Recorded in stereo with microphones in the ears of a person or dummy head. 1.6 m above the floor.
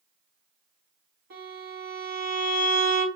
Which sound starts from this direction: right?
A violin, at 1.3 s.